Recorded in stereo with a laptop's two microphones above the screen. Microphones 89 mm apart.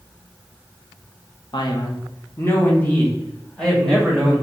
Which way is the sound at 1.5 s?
50° left (ahead or behind).